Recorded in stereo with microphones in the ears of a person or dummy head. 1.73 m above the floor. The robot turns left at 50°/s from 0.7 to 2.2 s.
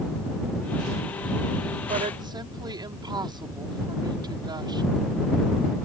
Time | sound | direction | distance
1.9 | a woman speaking | 35° right (ahead or behind) | ?